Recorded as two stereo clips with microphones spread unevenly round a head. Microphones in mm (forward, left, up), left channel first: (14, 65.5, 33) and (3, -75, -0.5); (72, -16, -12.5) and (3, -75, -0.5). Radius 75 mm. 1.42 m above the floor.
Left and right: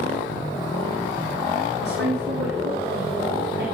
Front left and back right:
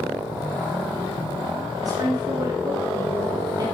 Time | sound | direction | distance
1.8 | a woman speaking | 95° right | 3.5 m